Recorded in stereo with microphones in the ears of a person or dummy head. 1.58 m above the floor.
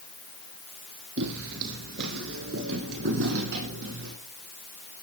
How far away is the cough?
I don't hear a cough.